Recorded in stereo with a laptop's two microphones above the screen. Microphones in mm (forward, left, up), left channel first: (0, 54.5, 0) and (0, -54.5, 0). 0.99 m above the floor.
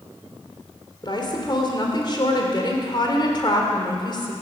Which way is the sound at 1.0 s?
40° left (ahead or behind).